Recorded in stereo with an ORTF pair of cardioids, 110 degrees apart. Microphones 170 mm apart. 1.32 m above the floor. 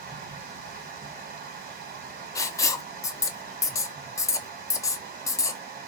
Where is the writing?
20° left, 0.5 m.